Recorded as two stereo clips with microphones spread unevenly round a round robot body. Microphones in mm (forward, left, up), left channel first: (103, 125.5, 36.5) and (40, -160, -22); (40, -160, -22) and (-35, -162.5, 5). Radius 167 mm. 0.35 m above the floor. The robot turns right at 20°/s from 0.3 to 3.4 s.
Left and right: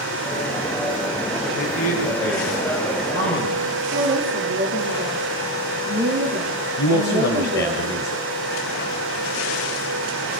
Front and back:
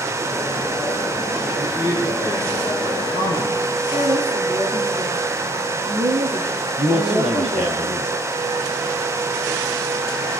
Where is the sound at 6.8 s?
140° left, 1.8 m.